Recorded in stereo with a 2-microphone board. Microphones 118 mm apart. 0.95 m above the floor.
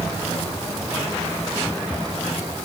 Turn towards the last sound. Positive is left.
No sound to turn to.